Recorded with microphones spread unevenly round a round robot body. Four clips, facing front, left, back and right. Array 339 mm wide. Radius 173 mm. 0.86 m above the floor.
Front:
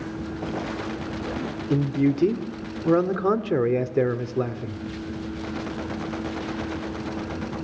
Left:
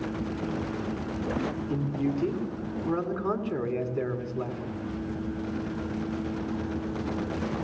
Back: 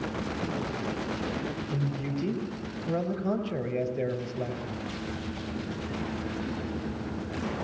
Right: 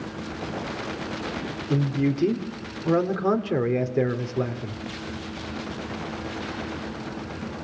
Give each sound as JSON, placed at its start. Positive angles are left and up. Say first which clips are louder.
{"t": 1.7, "sound": "a man speaking", "louder": "right 7 dB, front 15 dB", "azimuth_deg": -30, "distance_m": 2.5}